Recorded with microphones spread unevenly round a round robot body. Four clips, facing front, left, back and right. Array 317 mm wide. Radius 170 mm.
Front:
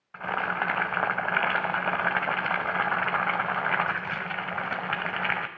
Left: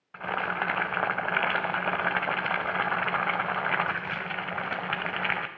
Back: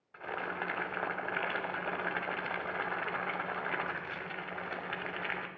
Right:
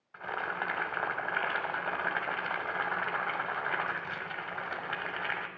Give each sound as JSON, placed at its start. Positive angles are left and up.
{"t": 0.1, "sound": "boiling", "azimuth_deg": 25, "distance_m": 1.4}